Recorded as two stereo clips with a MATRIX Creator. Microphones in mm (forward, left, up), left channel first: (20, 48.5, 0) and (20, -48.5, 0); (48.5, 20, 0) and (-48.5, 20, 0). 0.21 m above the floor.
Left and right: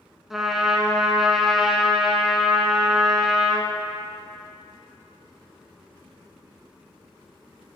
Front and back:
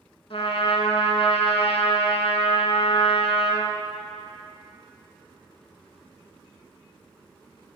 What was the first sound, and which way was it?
A trumpet, straight ahead.